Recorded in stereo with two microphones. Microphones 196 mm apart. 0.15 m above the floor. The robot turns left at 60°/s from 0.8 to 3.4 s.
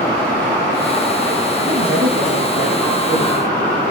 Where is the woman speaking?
55° right, 7.5 m; by 3.4 s 160° right, 7.5 m.